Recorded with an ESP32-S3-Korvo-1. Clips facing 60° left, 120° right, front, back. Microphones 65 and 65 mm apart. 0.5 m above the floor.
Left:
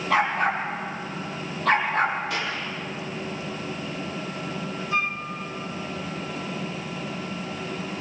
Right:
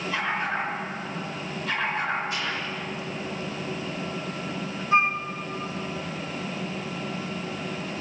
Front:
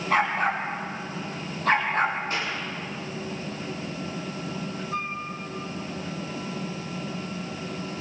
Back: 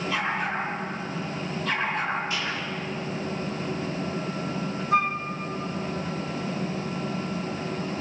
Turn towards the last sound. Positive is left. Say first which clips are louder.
# right 6 dB, back 10 dB
turn(degrees=-175)